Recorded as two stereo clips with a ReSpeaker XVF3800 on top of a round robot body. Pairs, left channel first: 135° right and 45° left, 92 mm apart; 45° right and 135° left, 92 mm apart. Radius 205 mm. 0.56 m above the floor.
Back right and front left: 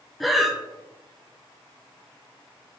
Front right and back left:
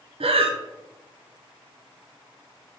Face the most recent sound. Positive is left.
turn(degrees=135)